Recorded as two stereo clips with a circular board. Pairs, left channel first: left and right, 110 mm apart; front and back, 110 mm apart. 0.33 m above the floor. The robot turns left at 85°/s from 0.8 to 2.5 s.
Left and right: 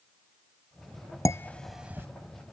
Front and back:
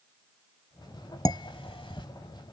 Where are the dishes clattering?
40° left; by 2.1 s 30° right.